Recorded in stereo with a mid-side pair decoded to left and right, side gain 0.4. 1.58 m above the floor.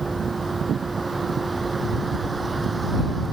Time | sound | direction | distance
0.0 | a vehicle | 20° right | ?